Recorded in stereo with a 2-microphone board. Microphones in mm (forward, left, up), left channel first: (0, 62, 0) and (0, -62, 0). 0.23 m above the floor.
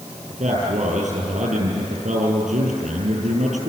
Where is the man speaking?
70° right (ahead or behind), 6.5 m.